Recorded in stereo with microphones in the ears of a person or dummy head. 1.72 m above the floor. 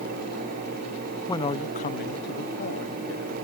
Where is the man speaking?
20° left (ahead or behind); by 3.4 s 75° left (ahead or behind).